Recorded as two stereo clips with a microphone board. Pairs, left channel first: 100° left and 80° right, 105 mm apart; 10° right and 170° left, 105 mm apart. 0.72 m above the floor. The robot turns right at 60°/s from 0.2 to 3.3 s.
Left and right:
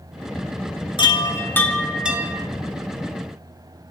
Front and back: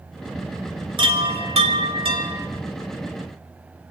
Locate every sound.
1.0 s a chime: 135° left, 1.1 m; by 2.5 s 135° right, 1.1 m